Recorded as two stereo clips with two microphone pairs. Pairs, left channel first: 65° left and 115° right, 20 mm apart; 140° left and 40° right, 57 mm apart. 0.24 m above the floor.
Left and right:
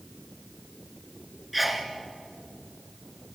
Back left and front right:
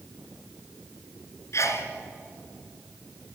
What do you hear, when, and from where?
1.5 s a sneeze: 160° left, 2.5 m